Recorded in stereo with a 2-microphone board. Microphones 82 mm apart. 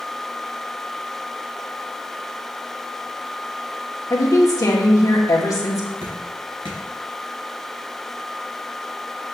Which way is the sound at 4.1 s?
45° left (ahead or behind).